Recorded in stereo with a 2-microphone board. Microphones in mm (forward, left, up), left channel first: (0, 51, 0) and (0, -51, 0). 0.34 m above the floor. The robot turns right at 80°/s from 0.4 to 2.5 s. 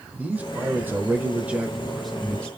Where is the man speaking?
15° right (ahead or behind), 0.8 m; by 2.5 s 10° left (ahead or behind), 0.8 m.